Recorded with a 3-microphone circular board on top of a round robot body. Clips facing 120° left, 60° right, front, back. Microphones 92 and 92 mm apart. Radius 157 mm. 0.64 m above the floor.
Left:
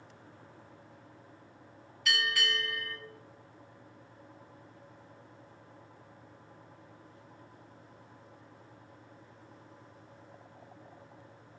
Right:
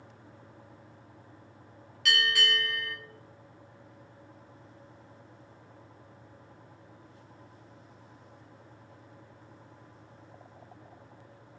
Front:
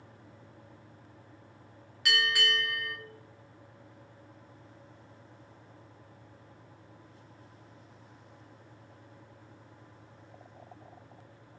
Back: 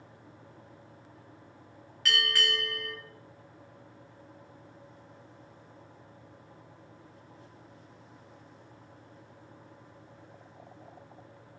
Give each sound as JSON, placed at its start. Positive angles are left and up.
{"t": 2.0, "sound": "a bell", "azimuth_deg": -80, "distance_m": 1.4}